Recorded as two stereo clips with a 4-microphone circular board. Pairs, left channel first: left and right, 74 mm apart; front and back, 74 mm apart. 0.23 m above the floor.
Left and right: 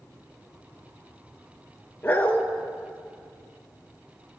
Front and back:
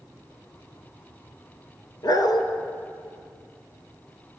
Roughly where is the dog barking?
Ahead left.